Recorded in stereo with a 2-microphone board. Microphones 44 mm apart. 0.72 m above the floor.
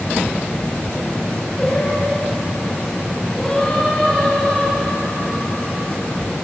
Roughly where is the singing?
Centre.